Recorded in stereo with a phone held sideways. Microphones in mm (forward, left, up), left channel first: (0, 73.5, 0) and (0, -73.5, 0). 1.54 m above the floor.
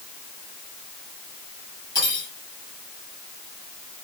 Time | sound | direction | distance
1.9 | cutlery clinking | 25° left (ahead or behind) | 6.5 m